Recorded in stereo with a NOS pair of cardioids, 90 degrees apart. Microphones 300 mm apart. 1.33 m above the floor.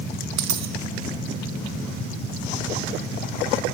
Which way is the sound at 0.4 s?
65° right.